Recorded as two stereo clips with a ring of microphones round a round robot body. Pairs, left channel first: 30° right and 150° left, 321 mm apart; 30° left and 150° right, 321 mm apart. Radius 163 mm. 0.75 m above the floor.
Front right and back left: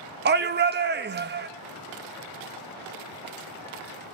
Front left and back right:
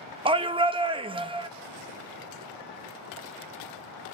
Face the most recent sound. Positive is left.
turn(degrees=150)